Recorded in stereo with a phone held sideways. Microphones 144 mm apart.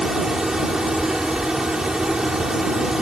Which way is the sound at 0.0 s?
5° right (ahead or behind).